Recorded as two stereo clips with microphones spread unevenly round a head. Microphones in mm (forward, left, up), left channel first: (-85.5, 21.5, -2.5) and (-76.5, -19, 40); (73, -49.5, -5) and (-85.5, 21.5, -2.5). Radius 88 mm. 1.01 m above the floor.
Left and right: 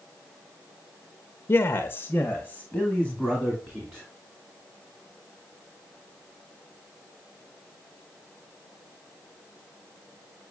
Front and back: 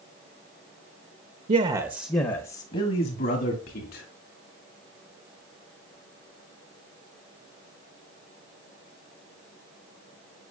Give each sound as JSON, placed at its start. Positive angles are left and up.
{"t": 1.5, "sound": "a man speaking", "azimuth_deg": 105, "distance_m": 0.7}